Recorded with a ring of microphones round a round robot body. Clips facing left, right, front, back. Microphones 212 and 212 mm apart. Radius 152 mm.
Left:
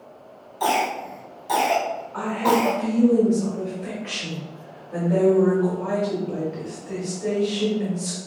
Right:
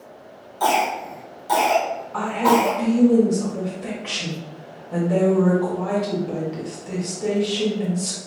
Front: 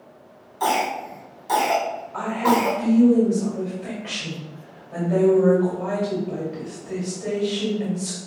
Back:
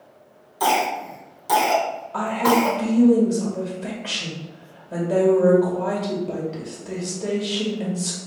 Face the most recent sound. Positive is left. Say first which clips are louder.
# right 2 dB, back 1 dB
turn(degrees=-140)